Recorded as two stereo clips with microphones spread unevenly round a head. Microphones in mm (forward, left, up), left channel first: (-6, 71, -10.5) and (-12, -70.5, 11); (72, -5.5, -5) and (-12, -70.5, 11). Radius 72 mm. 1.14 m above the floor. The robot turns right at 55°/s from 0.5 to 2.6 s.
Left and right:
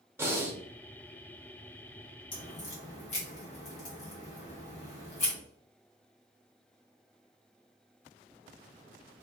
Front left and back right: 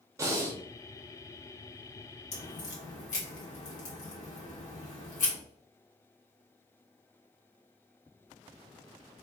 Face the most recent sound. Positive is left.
turn(degrees=40)